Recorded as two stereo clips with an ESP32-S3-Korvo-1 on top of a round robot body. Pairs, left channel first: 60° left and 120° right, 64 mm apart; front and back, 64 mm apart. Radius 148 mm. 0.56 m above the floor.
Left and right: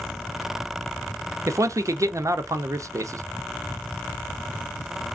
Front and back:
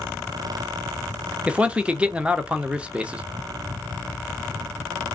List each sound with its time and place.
1.5 s a man speaking: 115° right, 0.8 m